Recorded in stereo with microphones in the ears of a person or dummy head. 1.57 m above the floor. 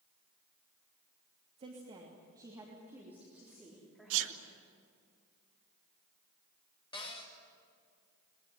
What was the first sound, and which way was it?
A woman speaking, 35° right (ahead or behind).